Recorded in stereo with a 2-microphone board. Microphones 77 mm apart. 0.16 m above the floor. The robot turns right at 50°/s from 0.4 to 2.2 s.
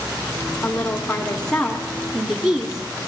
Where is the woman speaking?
25° left (ahead or behind), 1.1 m; by 2.9 s 5° right (ahead or behind), 1.1 m.